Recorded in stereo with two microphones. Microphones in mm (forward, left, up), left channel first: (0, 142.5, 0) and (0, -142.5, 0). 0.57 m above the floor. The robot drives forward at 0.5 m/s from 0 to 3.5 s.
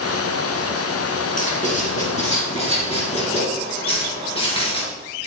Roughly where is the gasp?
No gasp in this recording.